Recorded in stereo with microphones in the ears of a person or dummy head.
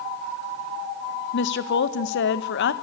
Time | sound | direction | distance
1.3 | a woman speaking | 60° left (ahead or behind) | 1.5 m